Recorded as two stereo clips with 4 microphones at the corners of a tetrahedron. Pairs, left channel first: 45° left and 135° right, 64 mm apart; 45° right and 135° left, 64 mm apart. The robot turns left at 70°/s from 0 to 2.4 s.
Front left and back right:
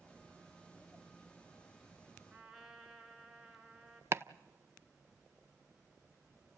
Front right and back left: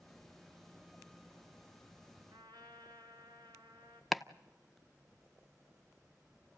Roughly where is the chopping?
Behind right.